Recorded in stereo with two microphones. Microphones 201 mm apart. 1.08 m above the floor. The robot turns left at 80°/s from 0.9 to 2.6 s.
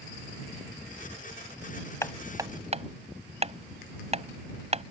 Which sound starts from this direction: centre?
Hammering, at 2.0 s.